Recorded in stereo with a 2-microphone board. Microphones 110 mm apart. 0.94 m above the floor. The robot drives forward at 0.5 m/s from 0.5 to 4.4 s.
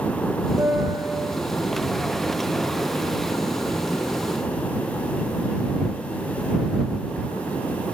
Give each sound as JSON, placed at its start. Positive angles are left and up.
{"t": 0.6, "sound": "a piano", "side_deg": -20, "distance_m": 3.0}